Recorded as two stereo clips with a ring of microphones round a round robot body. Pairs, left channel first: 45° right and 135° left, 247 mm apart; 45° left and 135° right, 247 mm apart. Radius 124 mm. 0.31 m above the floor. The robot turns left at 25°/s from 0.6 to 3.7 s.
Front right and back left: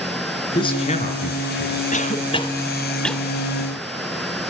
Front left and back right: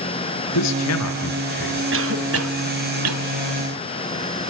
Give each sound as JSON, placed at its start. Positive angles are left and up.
{"t": 0.6, "sound": "a man speaking", "azimuth_deg": 25, "distance_m": 5.5}
{"t": 1.9, "sound": "a cough", "azimuth_deg": -100, "distance_m": 1.7}